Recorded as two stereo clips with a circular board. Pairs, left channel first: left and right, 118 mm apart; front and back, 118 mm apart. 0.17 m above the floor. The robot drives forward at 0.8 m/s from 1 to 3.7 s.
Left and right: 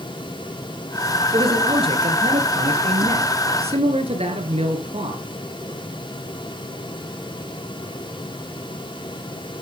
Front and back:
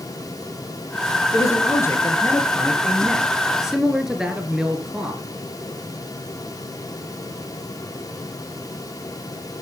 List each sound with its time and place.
1.3 s a man speaking: 55° right, 3.5 m; by 5.2 s 95° right, 3 m